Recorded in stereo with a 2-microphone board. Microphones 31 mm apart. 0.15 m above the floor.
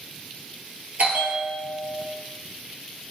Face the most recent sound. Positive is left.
turn(degrees=-55)  # may be behind; listen again after turning